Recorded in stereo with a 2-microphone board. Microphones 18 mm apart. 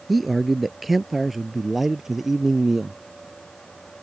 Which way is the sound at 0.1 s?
5° left (ahead or behind).